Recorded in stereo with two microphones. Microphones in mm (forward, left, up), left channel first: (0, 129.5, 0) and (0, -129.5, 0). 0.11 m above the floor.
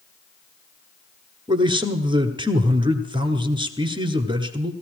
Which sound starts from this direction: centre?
A man speaking, at 1.5 s.